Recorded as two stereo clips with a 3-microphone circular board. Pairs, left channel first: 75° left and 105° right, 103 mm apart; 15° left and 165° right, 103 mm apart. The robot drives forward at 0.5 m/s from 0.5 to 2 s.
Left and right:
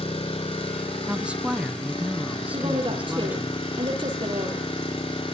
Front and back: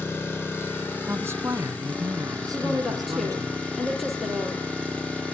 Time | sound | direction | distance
0.0 | an engine running | 85° left | 4.5 m
1.1 | a woman speaking | 160° right | 1.0 m
2.5 | a woman speaking | 75° right | 4.5 m